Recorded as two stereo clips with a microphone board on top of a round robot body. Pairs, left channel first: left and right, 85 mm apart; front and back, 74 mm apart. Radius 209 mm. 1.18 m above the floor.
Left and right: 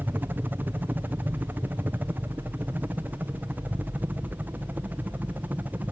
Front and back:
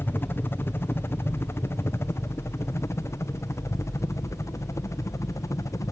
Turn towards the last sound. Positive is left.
turn(degrees=-25)